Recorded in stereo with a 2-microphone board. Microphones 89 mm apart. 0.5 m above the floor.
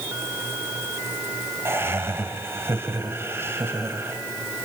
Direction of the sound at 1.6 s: 30° right (ahead or behind).